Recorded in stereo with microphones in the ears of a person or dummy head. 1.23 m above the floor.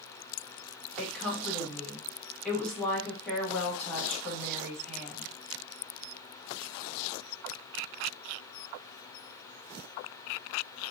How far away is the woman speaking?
About 1.7 m.